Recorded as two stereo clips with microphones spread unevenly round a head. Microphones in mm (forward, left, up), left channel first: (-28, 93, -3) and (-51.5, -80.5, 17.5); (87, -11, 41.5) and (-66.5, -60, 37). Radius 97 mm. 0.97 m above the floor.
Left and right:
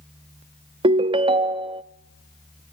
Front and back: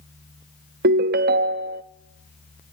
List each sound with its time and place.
0.8 s a ringtone: 150° right, 0.6 m